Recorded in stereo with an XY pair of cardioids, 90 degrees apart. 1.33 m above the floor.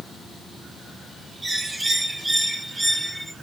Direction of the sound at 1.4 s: 25° right.